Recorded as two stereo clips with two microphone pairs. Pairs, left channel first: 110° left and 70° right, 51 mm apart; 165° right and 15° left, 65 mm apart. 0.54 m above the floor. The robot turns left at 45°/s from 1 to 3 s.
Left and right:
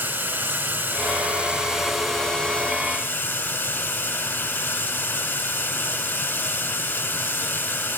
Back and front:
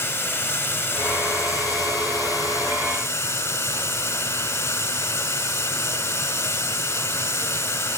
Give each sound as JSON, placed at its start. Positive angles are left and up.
{"t": 0.0, "sound": "running water", "azimuth_deg": -110, "distance_m": 3.0}